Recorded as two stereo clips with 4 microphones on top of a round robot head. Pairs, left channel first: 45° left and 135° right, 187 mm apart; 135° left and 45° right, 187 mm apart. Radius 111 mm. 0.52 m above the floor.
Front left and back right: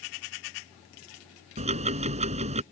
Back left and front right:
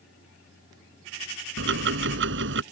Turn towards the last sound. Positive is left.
turn(degrees=-75)